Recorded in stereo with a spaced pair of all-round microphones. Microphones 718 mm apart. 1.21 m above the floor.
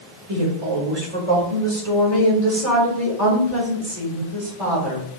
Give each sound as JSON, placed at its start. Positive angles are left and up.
{"t": 0.3, "sound": "a woman speaking", "side_deg": -55, "distance_m": 2.5}